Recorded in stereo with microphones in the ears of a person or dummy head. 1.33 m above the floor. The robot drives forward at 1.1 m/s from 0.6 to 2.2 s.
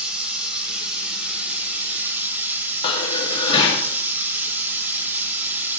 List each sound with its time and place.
0.0 s running water: 5° right (ahead or behind), 4 m; by 5.8 s 10° right (ahead or behind), 2 m
2.8 s dishes clattering: 30° left (ahead or behind), 1.5 m